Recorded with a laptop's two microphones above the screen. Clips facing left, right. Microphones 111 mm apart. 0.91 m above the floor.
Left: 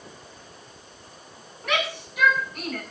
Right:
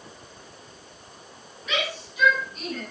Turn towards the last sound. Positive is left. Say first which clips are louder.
# left 3 dB
turn(degrees=60)  # may be behind; listen again after turning